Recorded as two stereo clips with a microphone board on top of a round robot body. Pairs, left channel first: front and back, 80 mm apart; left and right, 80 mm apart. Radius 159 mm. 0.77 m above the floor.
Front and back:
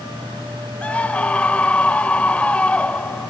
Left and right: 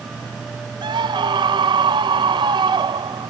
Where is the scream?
75° right.